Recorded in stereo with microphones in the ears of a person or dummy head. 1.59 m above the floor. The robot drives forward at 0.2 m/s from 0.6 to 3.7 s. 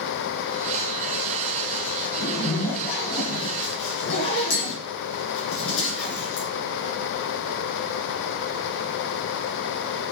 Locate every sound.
2.2 s a zipper: 60° left (ahead or behind), 2.0 m; by 6.5 s 65° left (ahead or behind), 1.8 m